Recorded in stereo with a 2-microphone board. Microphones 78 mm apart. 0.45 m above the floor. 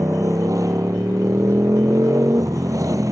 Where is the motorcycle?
45° right (ahead or behind).